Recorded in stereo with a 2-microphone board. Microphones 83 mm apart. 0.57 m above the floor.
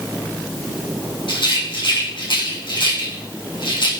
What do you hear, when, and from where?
1.3 s a rattle: 75° left (ahead or behind), 6.5 m